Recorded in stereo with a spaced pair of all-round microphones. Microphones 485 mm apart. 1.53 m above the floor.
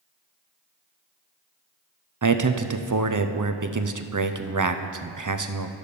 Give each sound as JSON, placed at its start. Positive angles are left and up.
{"t": 2.2, "sound": "a man speaking", "side_deg": -40, "distance_m": 0.6}